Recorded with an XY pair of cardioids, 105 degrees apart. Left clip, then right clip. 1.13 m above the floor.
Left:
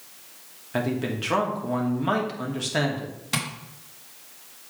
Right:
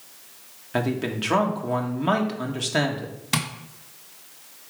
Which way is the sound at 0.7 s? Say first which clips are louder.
Right 1 dB; 15° right.